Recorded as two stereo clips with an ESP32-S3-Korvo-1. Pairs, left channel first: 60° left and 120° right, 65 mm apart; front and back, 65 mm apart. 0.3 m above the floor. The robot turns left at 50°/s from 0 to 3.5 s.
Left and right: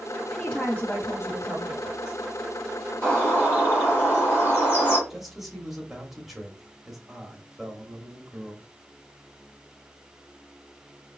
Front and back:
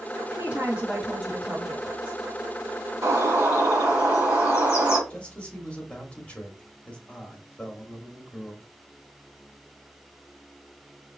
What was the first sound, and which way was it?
A woman speaking, 150° left.